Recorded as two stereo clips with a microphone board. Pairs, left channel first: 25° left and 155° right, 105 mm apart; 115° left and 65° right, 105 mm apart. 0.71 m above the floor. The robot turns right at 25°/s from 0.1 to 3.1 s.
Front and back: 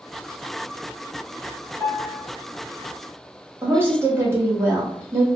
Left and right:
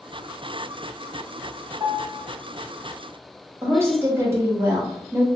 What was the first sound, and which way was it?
A piano, 40° right.